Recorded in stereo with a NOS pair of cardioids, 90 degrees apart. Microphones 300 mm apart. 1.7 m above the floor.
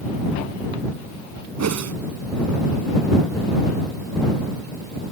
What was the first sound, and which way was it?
A whoosh, 55° right.